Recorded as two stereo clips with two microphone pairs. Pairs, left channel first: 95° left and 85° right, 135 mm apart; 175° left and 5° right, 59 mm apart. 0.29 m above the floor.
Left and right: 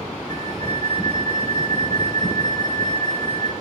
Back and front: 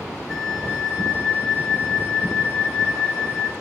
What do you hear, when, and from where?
0.3 s a flute: 85° right, 0.8 m